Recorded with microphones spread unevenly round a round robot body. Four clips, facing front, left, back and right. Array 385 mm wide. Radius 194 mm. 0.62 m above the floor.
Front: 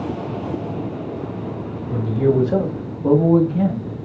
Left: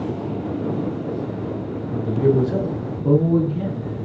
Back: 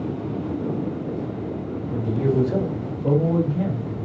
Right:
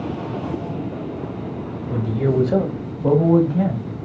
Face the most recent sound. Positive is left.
turn(degrees=-75)